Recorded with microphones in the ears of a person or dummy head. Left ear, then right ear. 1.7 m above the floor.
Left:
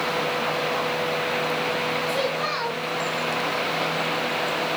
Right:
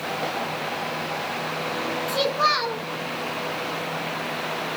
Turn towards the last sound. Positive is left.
turn(degrees=-25)  # may be behind; listen again after turning